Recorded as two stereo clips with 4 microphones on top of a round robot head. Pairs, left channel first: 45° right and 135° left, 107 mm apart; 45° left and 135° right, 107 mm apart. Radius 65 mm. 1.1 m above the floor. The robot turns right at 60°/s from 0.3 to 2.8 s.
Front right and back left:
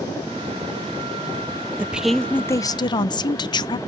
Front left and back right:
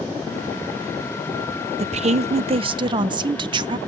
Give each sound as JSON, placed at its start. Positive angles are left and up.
{"t": 1.8, "sound": "a woman speaking", "azimuth_deg": -150, "distance_m": 0.5}